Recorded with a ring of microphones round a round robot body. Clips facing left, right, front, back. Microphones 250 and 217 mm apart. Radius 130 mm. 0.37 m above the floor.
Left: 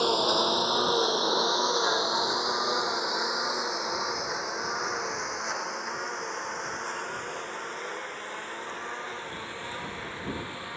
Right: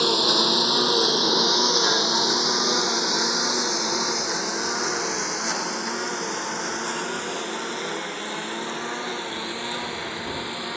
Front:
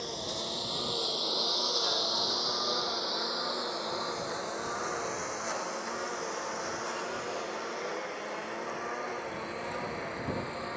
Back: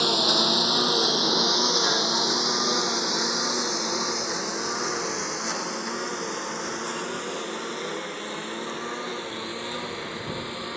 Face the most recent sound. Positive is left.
turn(degrees=-120)